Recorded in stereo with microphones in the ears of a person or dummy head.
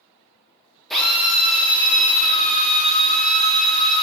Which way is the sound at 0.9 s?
Centre (ahead or behind).